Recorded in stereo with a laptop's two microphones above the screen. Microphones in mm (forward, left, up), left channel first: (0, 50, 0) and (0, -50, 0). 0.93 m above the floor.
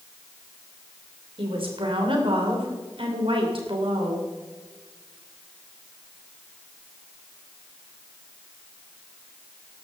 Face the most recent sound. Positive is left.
turn(degrees=-65)  # may be behind; listen again after turning